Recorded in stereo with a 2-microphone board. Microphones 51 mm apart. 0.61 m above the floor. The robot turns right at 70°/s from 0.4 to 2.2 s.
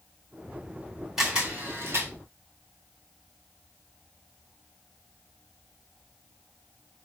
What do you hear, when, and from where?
1.2 s a camera shutter: 5° right (ahead or behind), 2.5 m; by 2.1 s 70° right (ahead or behind), 2.5 m